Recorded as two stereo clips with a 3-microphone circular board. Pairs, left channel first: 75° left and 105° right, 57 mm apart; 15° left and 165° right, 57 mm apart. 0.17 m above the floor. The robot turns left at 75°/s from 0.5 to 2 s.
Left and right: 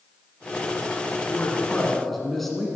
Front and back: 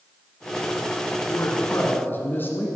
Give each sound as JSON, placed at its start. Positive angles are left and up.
{"t": 1.3, "sound": "a man speaking", "azimuth_deg": 45, "distance_m": 1.8}